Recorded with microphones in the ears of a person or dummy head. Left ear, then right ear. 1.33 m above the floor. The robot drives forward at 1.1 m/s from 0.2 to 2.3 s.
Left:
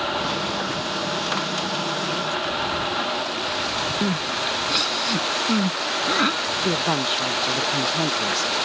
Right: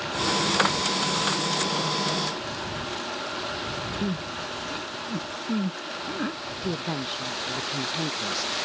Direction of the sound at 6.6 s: 30° left (ahead or behind).